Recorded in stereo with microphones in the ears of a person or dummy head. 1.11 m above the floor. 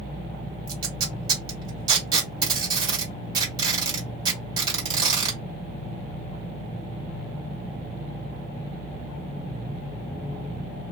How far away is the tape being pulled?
About 1.8 m.